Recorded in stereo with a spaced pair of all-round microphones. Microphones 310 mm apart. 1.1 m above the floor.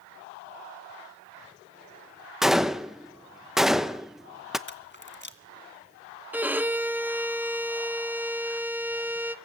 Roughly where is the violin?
Centre.